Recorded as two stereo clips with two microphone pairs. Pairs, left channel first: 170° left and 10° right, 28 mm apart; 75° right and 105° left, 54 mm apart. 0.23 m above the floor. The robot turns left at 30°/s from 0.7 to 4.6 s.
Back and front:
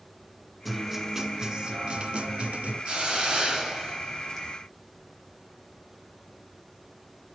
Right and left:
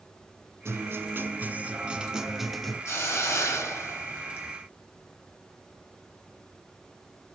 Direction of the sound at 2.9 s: 60° right.